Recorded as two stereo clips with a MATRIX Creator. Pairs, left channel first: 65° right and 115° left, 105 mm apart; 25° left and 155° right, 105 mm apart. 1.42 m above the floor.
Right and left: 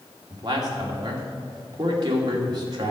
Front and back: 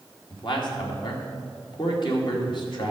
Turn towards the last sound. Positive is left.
turn(degrees=65)